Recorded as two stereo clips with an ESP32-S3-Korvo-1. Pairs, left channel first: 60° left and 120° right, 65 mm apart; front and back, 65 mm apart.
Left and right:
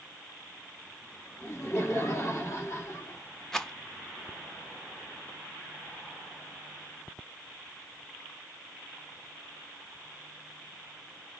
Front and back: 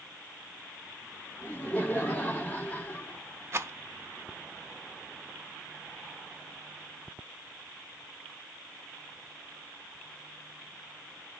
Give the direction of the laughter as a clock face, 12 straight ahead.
10 o'clock.